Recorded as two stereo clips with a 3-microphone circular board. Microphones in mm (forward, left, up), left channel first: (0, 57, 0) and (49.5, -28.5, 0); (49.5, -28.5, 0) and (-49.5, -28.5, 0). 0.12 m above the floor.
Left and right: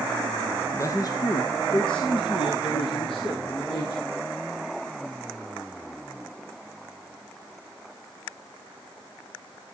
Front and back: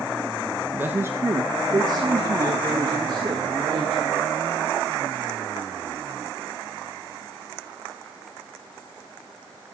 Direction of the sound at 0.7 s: 130° left.